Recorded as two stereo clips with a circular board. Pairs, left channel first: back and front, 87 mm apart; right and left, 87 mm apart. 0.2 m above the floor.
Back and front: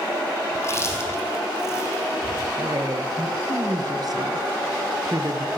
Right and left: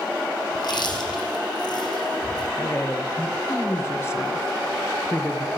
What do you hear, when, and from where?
0.6 s chewing: 120° right, 4.5 m
2.6 s a woman speaking: 35° right, 3 m